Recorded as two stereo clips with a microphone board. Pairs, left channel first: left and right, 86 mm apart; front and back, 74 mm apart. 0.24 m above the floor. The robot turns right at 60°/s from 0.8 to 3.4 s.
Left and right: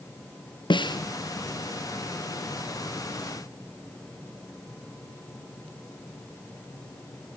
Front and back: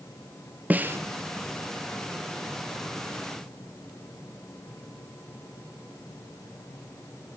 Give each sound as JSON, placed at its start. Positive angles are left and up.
{"t": 0.7, "sound": "a snare drum", "azimuth_deg": 115, "distance_m": 1.6}